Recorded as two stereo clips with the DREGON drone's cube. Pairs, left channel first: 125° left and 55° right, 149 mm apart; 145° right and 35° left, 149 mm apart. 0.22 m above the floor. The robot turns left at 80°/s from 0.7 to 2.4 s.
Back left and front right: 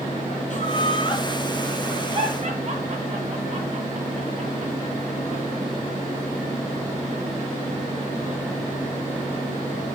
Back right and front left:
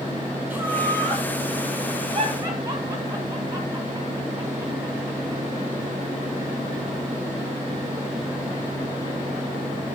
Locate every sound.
0.5 s laughter: 110° left, 2 m; by 5.4 s 25° right, 2 m